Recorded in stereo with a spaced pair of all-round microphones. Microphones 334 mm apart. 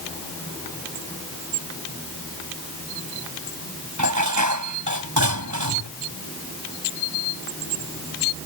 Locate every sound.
4.0 s dishes clattering: 65° right (ahead or behind)